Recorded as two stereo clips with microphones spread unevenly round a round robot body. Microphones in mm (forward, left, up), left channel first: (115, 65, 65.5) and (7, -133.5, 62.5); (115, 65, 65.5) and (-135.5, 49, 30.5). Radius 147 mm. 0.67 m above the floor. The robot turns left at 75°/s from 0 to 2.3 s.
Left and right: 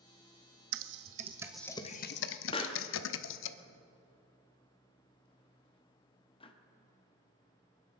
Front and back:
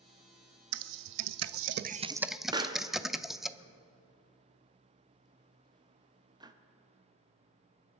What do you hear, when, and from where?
0.7 s typing on a keyboard: 145° right, 0.5 m; by 3.5 s 95° left, 0.5 m
2.5 s a pop: 120° left, 1.1 m